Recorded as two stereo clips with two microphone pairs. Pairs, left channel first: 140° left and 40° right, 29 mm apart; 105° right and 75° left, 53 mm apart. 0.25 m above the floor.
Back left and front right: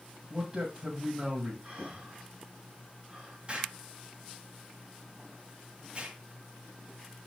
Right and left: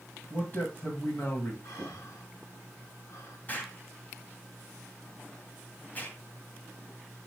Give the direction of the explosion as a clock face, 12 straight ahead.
2 o'clock.